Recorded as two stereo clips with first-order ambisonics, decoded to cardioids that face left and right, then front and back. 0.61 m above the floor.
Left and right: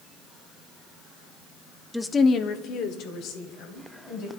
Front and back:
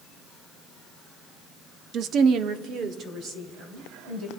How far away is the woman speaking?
About 0.6 m.